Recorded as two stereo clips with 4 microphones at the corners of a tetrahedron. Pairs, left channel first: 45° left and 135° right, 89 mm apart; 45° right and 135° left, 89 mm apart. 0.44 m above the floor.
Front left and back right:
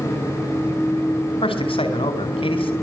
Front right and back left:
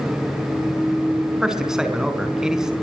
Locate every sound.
1.4 s a man speaking: 50° left, 4.5 m